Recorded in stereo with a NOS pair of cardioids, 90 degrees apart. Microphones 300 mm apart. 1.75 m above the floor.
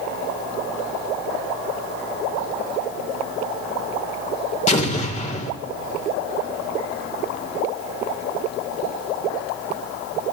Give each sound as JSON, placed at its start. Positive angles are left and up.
{"t": 4.7, "sound": "an explosion", "azimuth_deg": 25, "distance_m": 2.5}